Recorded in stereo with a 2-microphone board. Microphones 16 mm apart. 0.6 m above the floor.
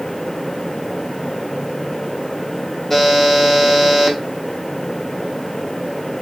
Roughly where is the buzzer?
Left.